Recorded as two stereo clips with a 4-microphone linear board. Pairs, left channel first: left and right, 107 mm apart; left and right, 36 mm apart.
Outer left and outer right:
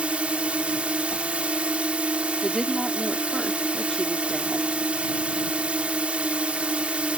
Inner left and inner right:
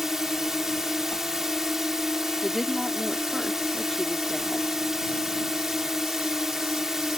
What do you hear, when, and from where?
0.0 s a drone: 10° right (ahead or behind)
1.1 s a whoosh: 55° left (ahead or behind)
2.4 s a woman speaking: 5° left (ahead or behind)